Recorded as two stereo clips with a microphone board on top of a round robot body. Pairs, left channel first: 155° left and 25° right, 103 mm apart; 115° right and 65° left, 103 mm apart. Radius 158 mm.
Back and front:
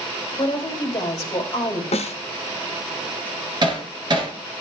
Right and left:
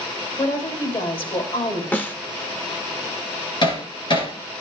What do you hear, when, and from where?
0.4 s a woman speaking: 150° right, 4 m
1.9 s a snare drum: 175° left, 1.2 m
3.6 s hammering: 70° right, 2.5 m